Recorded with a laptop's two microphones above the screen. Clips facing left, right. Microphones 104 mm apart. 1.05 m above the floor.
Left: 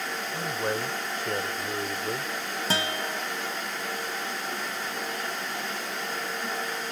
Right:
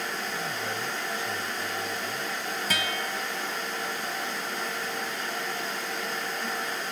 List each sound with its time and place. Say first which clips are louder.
0.3 s a man speaking: left 3 dB; 45° left (ahead or behind); by 2.3 s 65° left (ahead or behind)
2.7 s a guitar: left 4 dB; 30° left (ahead or behind)